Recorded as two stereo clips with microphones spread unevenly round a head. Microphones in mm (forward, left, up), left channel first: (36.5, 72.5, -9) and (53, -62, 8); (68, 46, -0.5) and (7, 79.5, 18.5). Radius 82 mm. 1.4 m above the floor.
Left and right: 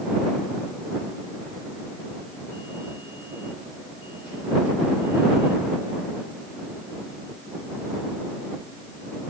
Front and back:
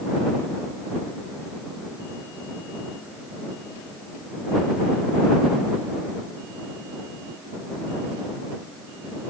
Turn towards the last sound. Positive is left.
No sound to turn to.